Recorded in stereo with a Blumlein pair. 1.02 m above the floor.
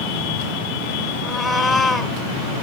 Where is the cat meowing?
15° left, 1.5 m.